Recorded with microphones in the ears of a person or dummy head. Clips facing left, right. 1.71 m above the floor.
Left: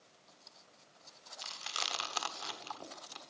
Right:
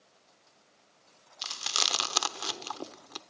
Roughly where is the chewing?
Right.